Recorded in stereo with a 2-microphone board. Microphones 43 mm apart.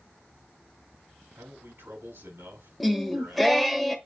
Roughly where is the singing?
Centre.